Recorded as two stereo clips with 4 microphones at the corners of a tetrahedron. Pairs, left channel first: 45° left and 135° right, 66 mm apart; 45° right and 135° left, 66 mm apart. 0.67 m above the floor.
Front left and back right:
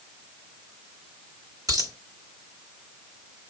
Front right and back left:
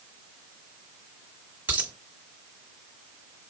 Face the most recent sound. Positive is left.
turn(degrees=-160)